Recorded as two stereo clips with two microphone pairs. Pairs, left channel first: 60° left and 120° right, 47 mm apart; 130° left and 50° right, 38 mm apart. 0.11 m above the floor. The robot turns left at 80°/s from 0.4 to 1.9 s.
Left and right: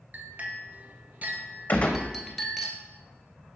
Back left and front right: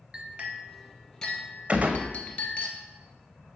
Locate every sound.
0.1 s a clink: 95° right, 1.0 m; by 2.7 s 145° left, 1.0 m
1.7 s a gunshot: 5° left, 1.0 m; by 2.1 s 10° right, 1.0 m